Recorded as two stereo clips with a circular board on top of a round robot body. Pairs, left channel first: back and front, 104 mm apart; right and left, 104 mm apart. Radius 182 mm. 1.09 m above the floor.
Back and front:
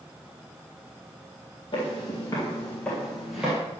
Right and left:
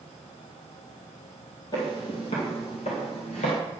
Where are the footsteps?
135° right, 1.6 m; by 3.6 s 80° right, 1.5 m.